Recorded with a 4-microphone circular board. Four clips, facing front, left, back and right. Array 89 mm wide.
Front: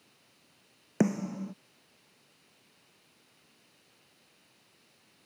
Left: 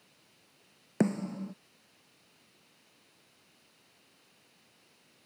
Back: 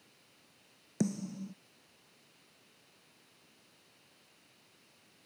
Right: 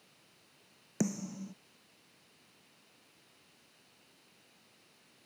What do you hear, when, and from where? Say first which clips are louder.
1.0 s a snare drum: left 6 dB, front 6 dB; 35° left